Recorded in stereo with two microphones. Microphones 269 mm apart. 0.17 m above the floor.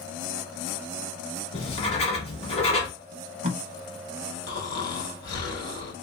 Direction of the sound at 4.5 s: 70° left (ahead or behind).